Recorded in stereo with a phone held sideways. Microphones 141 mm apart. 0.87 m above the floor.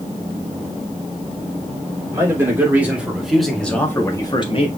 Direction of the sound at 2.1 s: 20° right (ahead or behind).